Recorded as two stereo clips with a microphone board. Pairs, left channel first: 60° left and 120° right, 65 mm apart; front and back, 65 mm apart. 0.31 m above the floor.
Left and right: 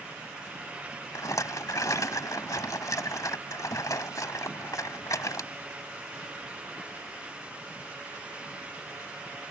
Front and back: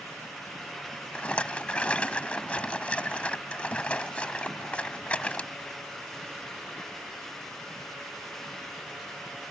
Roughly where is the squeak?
I don't hear a squeak.